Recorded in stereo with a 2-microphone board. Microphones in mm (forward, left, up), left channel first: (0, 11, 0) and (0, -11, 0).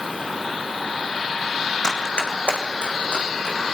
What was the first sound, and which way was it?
Running footsteps, 30° left (ahead or behind).